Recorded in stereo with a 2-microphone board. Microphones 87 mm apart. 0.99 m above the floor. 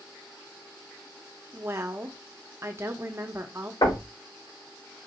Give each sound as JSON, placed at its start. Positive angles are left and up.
{"t": 1.5, "sound": "a woman speaking", "side_deg": -30, "distance_m": 0.8}
{"t": 3.8, "sound": "knocking", "side_deg": 65, "distance_m": 2.0}